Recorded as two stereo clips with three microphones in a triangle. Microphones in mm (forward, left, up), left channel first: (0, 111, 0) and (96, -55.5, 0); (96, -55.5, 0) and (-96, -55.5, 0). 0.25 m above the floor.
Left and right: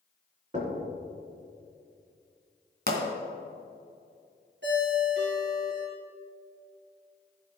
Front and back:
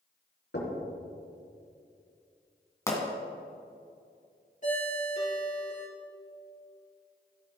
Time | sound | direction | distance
0.5 | knocking | 10° right | 2.5 m
2.9 | a pop | 70° right | 2 m
4.6 | a ringtone | 50° right | 3.5 m